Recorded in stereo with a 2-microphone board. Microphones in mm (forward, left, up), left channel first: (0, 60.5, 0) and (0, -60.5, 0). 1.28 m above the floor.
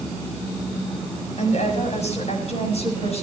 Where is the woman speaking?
70° left (ahead or behind), 6.5 m; by 3.2 s 60° left (ahead or behind), 8 m.